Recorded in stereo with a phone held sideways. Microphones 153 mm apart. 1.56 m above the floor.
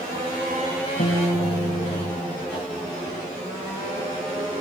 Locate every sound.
1.0 s a guitar: 80° left, 4.5 m